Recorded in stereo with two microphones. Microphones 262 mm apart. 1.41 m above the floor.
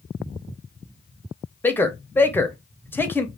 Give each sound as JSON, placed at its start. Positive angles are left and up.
{"t": 1.6, "sound": "a man speaking", "side_deg": 10, "distance_m": 0.6}